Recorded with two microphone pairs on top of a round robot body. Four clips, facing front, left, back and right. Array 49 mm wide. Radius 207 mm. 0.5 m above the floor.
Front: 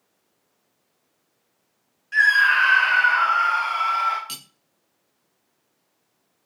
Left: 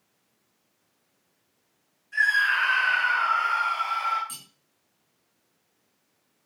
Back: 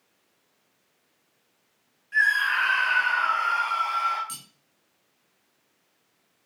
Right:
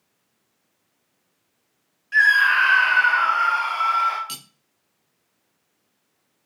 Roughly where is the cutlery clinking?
Ahead right.